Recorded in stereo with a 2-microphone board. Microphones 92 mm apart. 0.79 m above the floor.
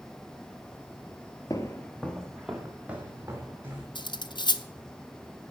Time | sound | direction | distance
1.5 | footsteps | 40° left (ahead or behind) | 1.1 m
4.0 | cutlery clinking | 55° left (ahead or behind) | 0.7 m